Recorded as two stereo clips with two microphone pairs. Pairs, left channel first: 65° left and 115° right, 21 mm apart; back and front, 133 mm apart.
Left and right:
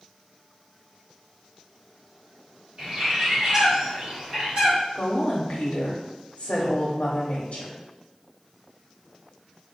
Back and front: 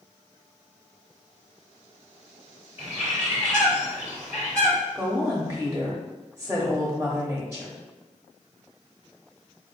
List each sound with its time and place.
2.8 s a bird: 70° right, 1.9 m
5.0 s a woman speaking: 70° left, 0.9 m